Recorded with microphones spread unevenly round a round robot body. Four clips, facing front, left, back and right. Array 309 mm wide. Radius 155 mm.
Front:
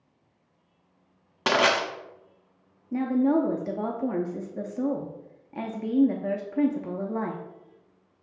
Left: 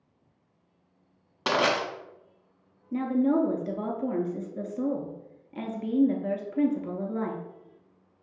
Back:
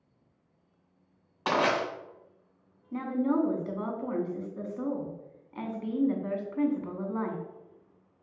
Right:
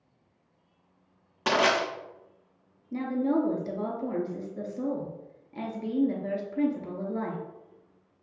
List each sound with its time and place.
1.5 s crushing: straight ahead, 1.3 m
2.9 s a woman speaking: 15° left, 0.6 m